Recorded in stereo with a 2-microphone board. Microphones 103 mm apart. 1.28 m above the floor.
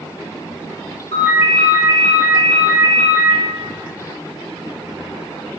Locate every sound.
1.1 s a ringtone: 70° left (ahead or behind), 1.4 m